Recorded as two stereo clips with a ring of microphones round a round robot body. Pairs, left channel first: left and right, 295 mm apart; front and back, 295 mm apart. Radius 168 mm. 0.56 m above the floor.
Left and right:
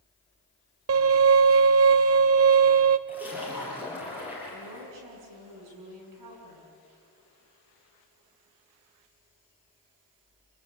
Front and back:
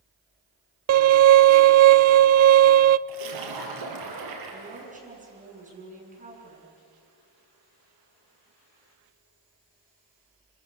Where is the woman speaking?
115° right, 7.5 m.